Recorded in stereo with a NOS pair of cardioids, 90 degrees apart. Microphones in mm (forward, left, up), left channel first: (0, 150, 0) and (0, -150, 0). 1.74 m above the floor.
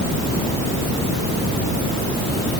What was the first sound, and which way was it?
Only background noise.